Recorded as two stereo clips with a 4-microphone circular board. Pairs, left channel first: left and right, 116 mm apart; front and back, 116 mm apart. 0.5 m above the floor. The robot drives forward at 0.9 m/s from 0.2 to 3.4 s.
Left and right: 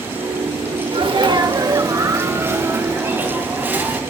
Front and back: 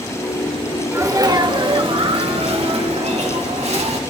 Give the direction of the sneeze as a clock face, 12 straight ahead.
4 o'clock.